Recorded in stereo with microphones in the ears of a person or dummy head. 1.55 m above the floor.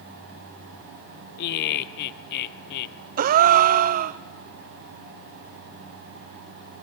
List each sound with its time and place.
1.4 s laughter: 55° left (ahead or behind), 0.8 m
3.2 s a gasp: 45° right (ahead or behind), 0.5 m